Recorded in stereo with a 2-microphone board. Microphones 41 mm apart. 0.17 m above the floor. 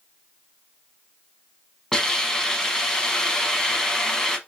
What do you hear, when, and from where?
1.9 s a hiss: 15° left (ahead or behind), 0.8 m